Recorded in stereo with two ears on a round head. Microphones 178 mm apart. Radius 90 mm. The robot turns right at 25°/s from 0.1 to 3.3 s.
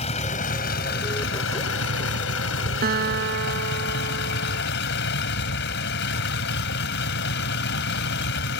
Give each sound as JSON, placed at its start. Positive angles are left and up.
{"t": 0.0, "sound": "a vehicle", "azimuth_deg": 35}
{"t": 2.8, "sound": "a guitar", "side_deg": -50}